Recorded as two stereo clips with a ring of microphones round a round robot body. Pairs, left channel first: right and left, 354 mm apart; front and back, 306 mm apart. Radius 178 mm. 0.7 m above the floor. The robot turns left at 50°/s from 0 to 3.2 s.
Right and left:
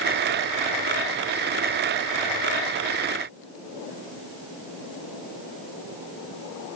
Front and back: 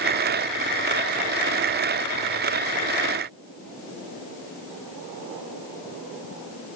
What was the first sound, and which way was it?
Only background noise.